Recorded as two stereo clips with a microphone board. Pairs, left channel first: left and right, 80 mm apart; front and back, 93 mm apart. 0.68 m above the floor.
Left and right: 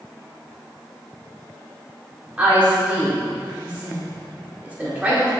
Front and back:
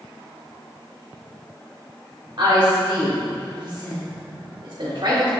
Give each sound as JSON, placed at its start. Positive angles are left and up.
{"t": 2.4, "sound": "a woman speaking", "azimuth_deg": -160, "distance_m": 1.6}